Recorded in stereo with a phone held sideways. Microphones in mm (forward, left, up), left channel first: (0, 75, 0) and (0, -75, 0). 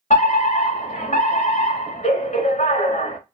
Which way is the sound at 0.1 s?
50° left (ahead or behind).